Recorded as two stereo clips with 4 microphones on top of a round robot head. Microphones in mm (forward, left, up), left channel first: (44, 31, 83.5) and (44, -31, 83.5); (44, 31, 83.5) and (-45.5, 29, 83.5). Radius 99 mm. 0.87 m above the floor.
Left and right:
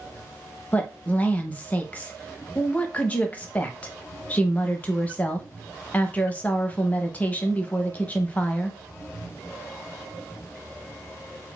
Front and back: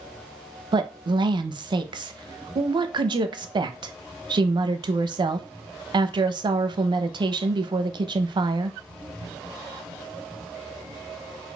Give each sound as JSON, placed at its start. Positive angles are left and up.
{"t": 0.7, "sound": "a woman speaking", "azimuth_deg": 155, "distance_m": 0.6}